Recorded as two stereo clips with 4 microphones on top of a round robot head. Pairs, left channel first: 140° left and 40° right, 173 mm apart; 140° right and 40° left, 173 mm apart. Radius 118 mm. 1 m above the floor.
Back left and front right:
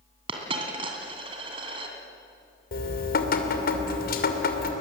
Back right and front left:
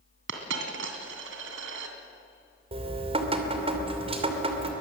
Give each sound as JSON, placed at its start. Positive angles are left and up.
{"t": 0.3, "sound": "a dropped coin", "azimuth_deg": 25, "distance_m": 2.5}
{"t": 2.7, "sound": "dripping", "azimuth_deg": 100, "distance_m": 2.5}